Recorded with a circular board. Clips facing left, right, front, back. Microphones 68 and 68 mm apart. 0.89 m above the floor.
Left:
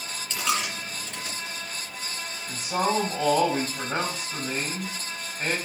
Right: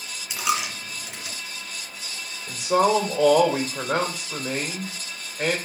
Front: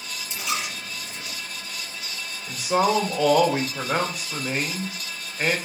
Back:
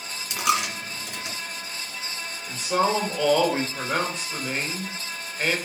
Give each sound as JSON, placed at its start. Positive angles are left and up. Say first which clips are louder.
{"t": 0.3, "sound": "a dropped coin", "louder": "right 2 dB, back 6 dB", "azimuth_deg": -170, "distance_m": 2.0}
{"t": 2.5, "sound": "a man speaking", "louder": "right 6 dB, front 2 dB", "azimuth_deg": -80, "distance_m": 3.5}